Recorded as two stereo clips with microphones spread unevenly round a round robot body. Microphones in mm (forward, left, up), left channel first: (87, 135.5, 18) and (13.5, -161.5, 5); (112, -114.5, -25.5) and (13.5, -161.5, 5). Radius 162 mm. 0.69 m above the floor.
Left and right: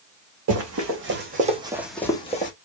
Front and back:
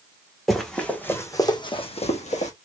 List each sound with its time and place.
0.5 s running footsteps: 65° right, 2.5 m; by 2.5 s 15° left, 2.0 m